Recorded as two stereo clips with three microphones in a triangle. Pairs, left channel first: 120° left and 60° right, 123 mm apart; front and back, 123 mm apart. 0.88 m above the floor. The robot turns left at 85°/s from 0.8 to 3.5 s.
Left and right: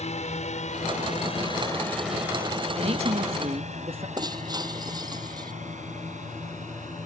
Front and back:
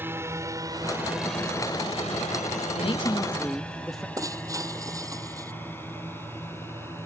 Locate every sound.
0.0 s a drone: 110° left; by 7.0 s 70° right
2.8 s a man speaking: 25° right; by 4.1 s 90° right
4.2 s breaking glass: 115° right